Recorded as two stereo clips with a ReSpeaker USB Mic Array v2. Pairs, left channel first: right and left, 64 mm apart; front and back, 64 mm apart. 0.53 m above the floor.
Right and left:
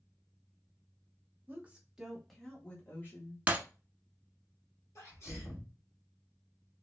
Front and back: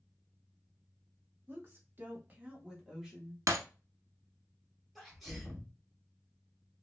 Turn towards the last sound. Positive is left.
turn(degrees=-90)